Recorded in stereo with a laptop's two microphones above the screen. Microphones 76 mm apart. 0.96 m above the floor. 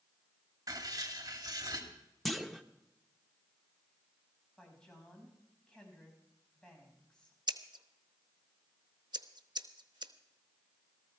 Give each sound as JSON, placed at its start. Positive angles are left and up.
{"t": 0.7, "sound": "writing", "side_deg": -50, "distance_m": 2.5}
{"t": 2.2, "sound": "a clunk", "side_deg": 0, "distance_m": 0.6}
{"t": 4.6, "sound": "a woman speaking", "side_deg": 10, "distance_m": 6.0}
{"t": 7.5, "sound": "scissors", "side_deg": -70, "distance_m": 0.9}